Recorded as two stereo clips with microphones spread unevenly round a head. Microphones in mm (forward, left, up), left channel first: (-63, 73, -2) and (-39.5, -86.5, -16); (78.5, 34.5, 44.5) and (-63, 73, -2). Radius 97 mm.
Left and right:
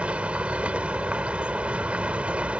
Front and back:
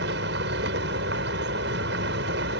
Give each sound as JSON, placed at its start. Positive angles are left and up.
{"t": 0.0, "sound": "a vehicle", "azimuth_deg": -165}